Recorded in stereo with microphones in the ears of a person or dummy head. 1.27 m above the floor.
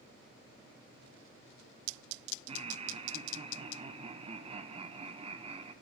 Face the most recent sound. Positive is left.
turn(degrees=-25)  # may be behind; listen again after turning